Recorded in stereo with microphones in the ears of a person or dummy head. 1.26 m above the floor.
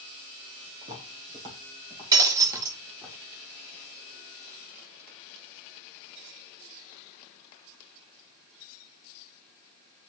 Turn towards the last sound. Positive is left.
turn(degrees=-20)  # may be behind; listen again after turning